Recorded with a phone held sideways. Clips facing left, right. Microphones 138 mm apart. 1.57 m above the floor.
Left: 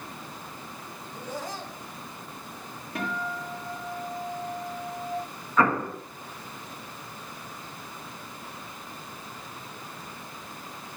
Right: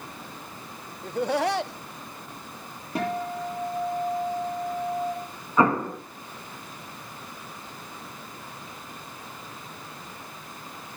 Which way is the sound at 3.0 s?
30° right (ahead or behind).